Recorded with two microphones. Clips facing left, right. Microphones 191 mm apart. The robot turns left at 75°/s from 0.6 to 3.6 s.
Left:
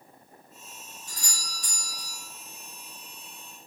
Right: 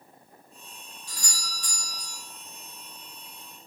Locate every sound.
1.1 s a doorbell: 125° left, 2.5 m; by 2.2 s 45° left, 2.5 m